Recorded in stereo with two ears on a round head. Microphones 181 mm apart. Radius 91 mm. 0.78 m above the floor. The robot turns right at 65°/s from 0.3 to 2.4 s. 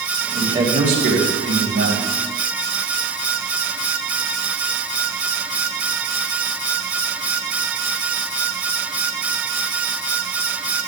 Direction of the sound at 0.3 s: 170° right.